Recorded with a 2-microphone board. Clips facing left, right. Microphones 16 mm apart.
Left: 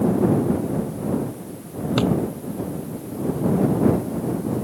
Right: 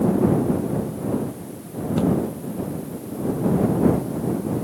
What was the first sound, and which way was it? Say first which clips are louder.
A drawer: even; 50° left (ahead or behind).